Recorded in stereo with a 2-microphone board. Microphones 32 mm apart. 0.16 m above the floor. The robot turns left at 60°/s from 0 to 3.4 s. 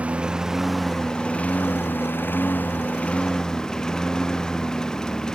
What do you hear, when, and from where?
0.0 s a lawn mower: 135° right; by 5.3 s 20° left